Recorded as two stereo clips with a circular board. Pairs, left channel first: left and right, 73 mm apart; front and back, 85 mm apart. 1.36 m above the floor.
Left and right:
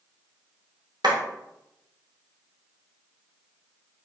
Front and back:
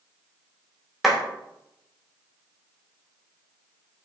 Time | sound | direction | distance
1.0 | a clap | 90° right | 0.8 m